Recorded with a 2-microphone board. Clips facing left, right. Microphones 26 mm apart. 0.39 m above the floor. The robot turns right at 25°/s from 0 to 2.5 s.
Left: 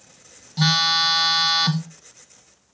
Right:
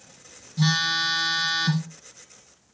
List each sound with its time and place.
0.6 s a phone buzzing: 70° left, 0.8 m; by 1.9 s 100° left, 0.8 m